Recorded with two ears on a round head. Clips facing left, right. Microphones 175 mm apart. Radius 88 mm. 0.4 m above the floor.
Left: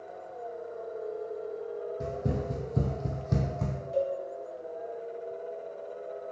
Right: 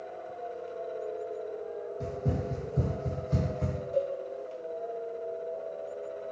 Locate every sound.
2.0 s running footsteps: 10° left (ahead or behind), 0.7 m; by 3.8 s 70° left (ahead or behind), 1.0 m
3.9 s a cowbell: 10° left (ahead or behind), 0.9 m